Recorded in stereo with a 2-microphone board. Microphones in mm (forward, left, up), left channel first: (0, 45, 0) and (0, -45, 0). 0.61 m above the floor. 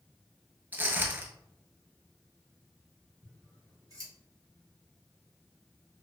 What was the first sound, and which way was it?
Footsteps, 25° right (ahead or behind).